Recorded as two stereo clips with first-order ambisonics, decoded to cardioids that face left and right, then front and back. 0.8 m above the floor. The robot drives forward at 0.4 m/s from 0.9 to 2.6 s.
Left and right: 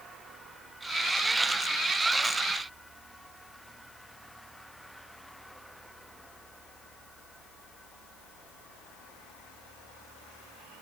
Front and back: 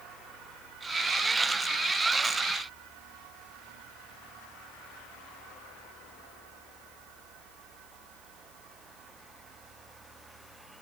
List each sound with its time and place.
Only background noise.